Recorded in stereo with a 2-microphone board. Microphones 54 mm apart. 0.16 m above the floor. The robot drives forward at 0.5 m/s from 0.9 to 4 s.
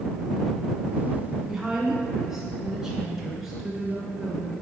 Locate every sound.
1.5 s a woman speaking: 5° right (ahead or behind), 1.0 m